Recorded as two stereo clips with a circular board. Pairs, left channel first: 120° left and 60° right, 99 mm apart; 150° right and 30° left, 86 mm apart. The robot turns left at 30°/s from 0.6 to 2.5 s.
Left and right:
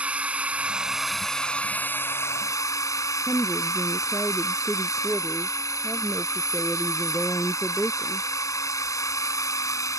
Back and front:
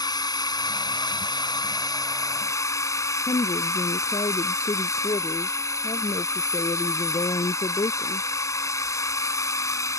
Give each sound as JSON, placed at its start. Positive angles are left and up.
{"t": 0.0, "sound": "a drone", "azimuth_deg": -135}
{"t": 3.3, "sound": "a woman speaking", "azimuth_deg": -140}